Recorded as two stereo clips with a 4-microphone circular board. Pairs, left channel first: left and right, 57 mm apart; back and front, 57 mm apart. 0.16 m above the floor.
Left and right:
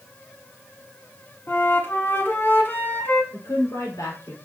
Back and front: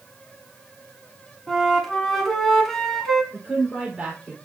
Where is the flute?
100° left, 1.4 m.